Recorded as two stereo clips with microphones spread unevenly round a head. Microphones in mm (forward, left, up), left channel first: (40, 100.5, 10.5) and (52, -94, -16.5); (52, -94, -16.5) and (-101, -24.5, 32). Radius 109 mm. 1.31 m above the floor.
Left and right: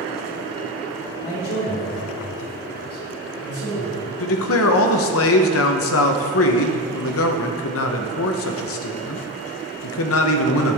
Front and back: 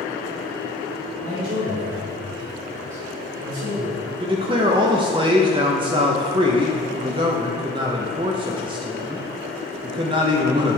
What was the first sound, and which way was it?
A man speaking, 125° left.